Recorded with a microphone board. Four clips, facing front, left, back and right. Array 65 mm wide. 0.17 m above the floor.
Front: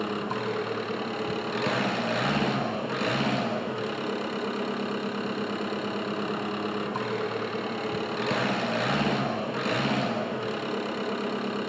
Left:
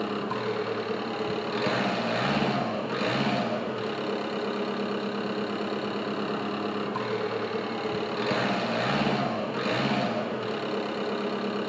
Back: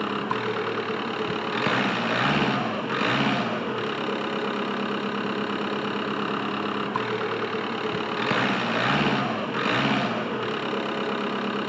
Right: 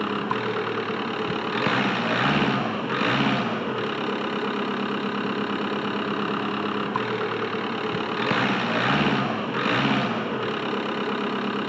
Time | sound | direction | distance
0.0 | an engine running | 120° right | 1.3 m